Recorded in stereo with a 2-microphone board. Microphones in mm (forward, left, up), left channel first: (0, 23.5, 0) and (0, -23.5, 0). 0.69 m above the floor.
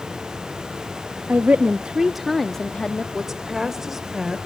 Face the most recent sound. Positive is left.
turn(degrees=-10)  # may be behind; listen again after turning